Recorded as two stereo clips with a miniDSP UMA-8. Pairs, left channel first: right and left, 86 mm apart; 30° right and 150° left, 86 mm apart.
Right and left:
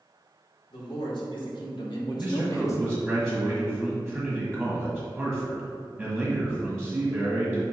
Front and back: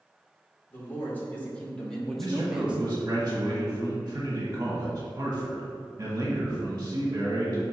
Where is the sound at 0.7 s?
95° right, 2 m; by 3.2 s 160° right, 0.8 m.